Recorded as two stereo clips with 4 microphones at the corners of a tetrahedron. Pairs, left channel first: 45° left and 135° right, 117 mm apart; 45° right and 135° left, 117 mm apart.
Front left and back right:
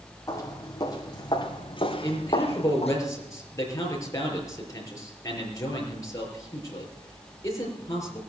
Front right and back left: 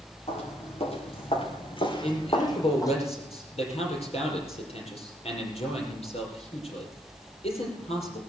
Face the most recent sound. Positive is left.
turn(degrees=-15)